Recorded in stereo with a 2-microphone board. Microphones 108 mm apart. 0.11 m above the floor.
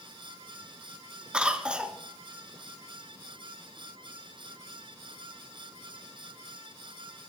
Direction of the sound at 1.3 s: 10° right (ahead or behind).